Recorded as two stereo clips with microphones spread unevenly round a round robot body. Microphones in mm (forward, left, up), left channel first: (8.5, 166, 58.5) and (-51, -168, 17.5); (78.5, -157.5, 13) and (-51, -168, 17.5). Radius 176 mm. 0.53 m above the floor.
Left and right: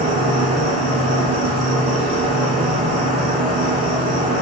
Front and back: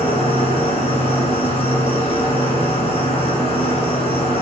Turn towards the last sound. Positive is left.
turn(degrees=-30)